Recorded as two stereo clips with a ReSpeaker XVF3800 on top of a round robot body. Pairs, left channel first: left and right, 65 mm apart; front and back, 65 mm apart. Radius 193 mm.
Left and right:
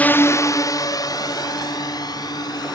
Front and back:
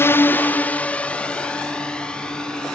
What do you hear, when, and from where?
0.0 s a drone: 30° left; by 2.8 s 80° left